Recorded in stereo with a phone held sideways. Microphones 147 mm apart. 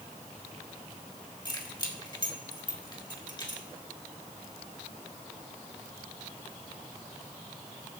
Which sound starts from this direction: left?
Keys jangling, at 1.4 s.